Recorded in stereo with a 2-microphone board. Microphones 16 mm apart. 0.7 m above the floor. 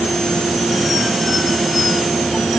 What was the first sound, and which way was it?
Only background noise.